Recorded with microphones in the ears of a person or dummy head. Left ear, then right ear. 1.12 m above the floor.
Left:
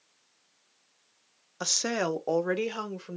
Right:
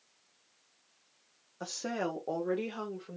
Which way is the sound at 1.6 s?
50° left (ahead or behind).